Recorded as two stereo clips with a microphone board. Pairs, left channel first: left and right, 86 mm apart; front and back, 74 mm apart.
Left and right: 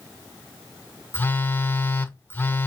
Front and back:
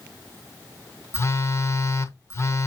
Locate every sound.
1.1 s a phone buzzing: 35° left, 0.9 m